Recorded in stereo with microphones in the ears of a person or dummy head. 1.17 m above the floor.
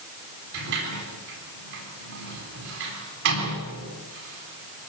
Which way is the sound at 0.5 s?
60° right (ahead or behind).